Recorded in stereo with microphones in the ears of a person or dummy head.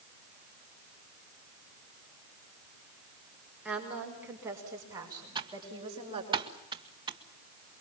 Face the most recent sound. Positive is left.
turn(degrees=-25)  # may be behind; listen again after turning